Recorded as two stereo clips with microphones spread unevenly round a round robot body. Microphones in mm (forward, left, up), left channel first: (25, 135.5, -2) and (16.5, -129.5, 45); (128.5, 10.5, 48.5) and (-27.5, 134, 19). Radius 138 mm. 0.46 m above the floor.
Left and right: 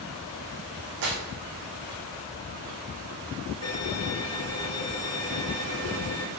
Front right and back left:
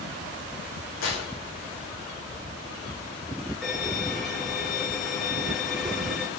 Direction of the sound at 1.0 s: 85° right.